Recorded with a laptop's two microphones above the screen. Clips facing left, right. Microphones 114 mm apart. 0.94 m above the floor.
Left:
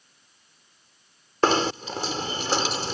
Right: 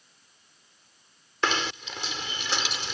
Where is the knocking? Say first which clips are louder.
Left 7 dB; 40° left (ahead or behind).